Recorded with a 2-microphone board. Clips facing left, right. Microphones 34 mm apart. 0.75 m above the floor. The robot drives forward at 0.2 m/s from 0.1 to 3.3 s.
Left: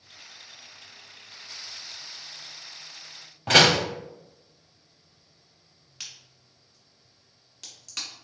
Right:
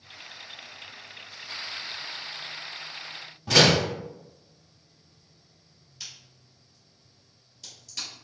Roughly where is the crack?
Left.